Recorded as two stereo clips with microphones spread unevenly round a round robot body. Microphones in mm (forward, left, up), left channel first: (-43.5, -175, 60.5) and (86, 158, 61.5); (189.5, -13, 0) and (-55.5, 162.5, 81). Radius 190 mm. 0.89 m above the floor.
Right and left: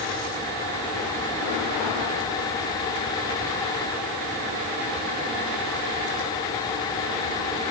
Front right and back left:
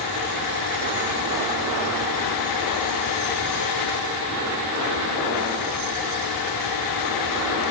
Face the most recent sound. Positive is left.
No sound to turn to.